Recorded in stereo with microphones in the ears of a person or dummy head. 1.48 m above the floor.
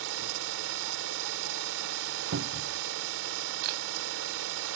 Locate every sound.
0.0 s an engine running: 75° right (ahead or behind)
2.3 s a cupboard door: 70° right (ahead or behind)
3.6 s a camera shutter: 65° right (ahead or behind)